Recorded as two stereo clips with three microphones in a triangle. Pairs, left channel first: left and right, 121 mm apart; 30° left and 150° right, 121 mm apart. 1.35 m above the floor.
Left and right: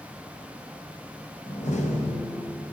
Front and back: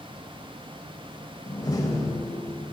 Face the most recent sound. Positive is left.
turn(degrees=90)